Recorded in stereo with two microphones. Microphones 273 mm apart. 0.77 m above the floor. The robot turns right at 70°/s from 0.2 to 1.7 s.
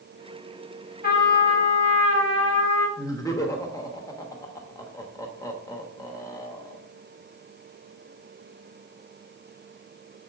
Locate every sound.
1.0 s a trumpet: 35° left, 2.5 m; by 2.9 s 85° left, 2.5 m
3.0 s laughter: 15° left (ahead or behind), 1.2 m